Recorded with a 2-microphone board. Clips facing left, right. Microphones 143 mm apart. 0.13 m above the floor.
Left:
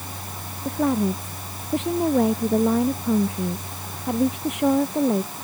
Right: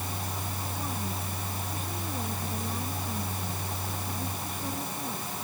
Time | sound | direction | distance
0.7 | a woman speaking | 80° left | ?